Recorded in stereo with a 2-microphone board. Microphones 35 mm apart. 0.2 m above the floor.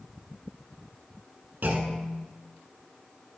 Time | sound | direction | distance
1.6 | a clunk | 60° right (ahead or behind) | 1.0 m